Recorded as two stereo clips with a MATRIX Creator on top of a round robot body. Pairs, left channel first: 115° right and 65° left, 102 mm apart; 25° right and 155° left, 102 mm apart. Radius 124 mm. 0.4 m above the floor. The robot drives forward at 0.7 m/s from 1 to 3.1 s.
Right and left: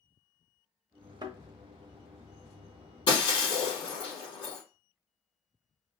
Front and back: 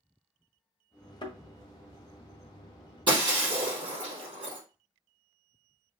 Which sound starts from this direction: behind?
Breaking glass, at 3.1 s.